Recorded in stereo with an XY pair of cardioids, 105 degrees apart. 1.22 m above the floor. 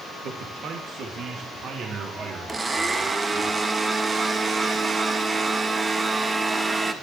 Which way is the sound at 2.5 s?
25° right.